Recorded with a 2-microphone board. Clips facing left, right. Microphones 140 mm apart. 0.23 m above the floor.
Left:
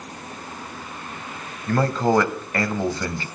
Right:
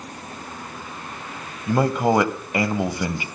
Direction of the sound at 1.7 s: 15° right (ahead or behind).